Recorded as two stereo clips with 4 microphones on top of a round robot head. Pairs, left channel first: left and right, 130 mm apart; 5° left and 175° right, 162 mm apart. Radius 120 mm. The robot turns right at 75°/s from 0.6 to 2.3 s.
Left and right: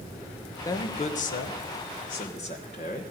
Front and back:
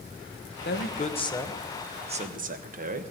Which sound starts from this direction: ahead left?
A man speaking, at 0.7 s.